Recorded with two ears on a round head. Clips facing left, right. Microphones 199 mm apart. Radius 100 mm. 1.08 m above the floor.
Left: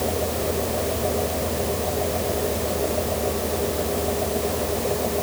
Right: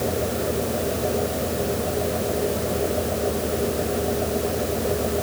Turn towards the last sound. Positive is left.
No sound to turn to.